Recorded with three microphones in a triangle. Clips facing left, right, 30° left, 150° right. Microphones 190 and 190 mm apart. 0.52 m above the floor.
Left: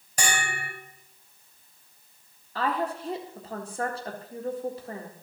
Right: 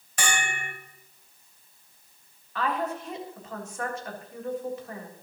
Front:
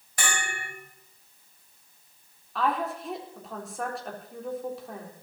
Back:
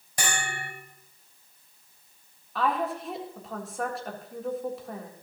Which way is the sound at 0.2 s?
140° left.